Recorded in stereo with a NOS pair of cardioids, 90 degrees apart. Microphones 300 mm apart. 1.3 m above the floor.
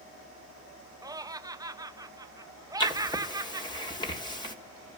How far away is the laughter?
About 0.9 m.